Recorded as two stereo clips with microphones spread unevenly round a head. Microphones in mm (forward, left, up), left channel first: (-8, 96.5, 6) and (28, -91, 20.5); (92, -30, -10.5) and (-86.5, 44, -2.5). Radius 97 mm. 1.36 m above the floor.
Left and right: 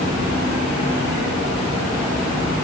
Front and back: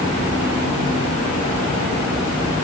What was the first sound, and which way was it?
Only background noise.